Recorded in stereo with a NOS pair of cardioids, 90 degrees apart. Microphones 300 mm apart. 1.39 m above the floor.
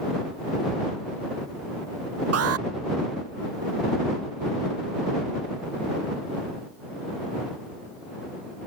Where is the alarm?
55° right.